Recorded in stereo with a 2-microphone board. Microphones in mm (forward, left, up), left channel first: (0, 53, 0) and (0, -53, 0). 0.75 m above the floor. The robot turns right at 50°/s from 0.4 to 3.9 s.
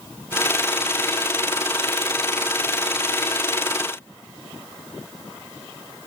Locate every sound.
Only background noise.